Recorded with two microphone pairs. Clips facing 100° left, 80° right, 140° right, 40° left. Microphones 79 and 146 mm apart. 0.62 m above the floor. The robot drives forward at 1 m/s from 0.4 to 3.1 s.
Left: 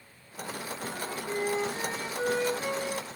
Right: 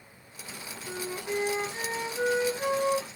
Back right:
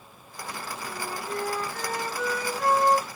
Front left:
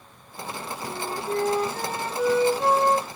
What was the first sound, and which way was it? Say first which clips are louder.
A flute: right 3 dB, front left 5 dB; 10° right.